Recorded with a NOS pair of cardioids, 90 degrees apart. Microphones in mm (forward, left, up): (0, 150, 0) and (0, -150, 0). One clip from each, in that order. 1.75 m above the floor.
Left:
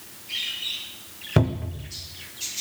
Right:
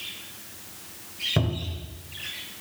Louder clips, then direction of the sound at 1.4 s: Left 4 dB; 30° left.